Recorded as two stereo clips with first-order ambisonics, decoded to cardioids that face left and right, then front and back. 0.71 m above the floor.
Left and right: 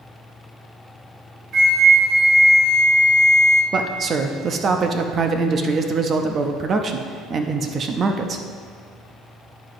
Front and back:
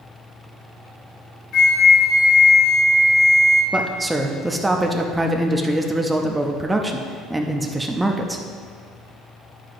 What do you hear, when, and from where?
1.5 s a flute: 40° right, 1.1 m
3.7 s a man speaking: 105° right, 0.6 m